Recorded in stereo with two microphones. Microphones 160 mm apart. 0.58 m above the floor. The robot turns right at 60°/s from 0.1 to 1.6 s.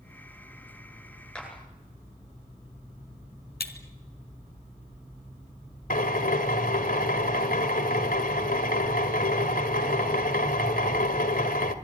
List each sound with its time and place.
1.4 s a clap: 5° left (ahead or behind), 9.5 m; by 1.5 s 15° left (ahead or behind), 9.5 m
3.6 s breaking glass: 80° left, 2 m
5.9 s a drill: 65° left (ahead or behind), 1.9 m